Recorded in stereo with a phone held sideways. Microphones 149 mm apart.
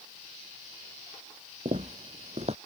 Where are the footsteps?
50° right (ahead or behind).